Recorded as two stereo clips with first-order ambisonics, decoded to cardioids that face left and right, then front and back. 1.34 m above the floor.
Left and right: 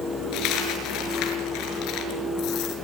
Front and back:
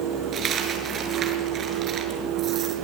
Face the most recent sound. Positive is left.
turn(degrees=120)